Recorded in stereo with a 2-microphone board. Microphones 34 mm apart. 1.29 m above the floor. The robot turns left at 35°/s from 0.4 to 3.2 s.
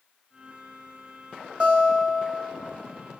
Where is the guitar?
45° right, 1.6 m; by 2.6 s 80° right, 1.6 m.